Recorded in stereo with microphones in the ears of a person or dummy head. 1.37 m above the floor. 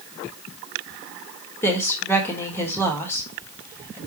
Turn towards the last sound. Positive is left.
turn(degrees=20)  # may be behind; listen again after turning